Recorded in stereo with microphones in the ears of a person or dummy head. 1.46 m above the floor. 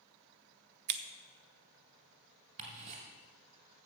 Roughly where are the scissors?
Right.